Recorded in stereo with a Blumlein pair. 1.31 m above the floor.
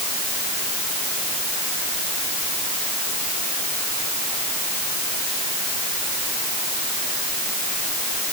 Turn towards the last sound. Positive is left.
No sound to turn to.